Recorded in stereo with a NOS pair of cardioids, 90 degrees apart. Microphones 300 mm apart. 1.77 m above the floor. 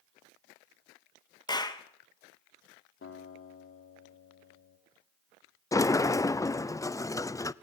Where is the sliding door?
10° left, 0.5 m.